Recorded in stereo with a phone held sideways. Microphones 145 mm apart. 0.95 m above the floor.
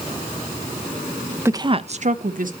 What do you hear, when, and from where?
1.4 s a woman speaking: 15° right (ahead or behind), 0.5 m; by 2.5 s 65° right (ahead or behind), 0.9 m